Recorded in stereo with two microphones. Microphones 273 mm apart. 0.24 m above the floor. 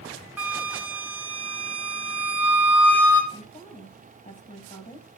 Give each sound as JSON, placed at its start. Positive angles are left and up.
{"t": 0.4, "sound": "a flute", "side_deg": -5, "distance_m": 2.0}
{"t": 3.3, "sound": "a woman speaking", "side_deg": 25, "distance_m": 1.8}